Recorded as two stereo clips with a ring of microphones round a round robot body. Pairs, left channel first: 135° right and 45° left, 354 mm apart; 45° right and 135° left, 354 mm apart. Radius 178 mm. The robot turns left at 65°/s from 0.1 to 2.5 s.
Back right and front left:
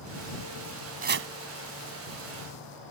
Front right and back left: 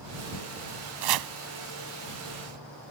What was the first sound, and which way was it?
Chopping, 115° left.